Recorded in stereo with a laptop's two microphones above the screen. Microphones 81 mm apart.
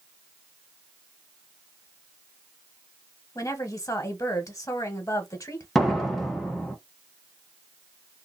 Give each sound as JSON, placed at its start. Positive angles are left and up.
{"t": 3.4, "sound": "a woman speaking", "side_deg": 45, "distance_m": 1.2}
{"t": 5.8, "sound": "a door slam", "side_deg": 0, "distance_m": 0.8}